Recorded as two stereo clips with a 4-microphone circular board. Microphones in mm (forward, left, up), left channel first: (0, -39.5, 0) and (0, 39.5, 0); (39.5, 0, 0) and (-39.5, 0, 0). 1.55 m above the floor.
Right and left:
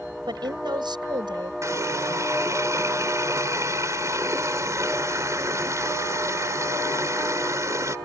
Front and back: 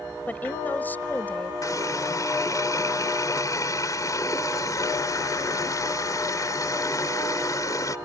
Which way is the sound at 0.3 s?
70° left.